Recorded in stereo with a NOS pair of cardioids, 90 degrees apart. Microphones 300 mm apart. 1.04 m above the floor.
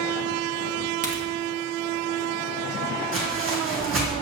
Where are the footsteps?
45° right, 3 m.